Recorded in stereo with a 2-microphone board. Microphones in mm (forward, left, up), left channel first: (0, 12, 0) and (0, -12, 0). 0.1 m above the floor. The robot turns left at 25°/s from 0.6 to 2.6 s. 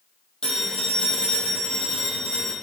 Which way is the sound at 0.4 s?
135° left.